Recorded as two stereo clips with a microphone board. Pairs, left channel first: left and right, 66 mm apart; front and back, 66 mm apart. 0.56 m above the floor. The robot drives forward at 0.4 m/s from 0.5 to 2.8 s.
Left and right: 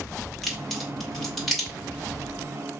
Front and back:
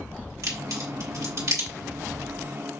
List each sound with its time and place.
0.4 s a crack: straight behind, 1.8 m